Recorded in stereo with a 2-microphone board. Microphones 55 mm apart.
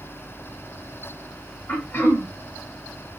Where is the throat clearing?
45° left (ahead or behind), 1.5 m.